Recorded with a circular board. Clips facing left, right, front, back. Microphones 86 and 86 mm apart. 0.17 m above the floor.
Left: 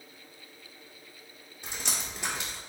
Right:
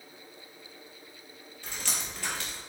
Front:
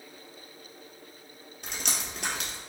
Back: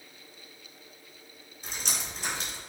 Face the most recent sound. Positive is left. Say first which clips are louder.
# left 1 dB, front 1 dB
turn(degrees=20)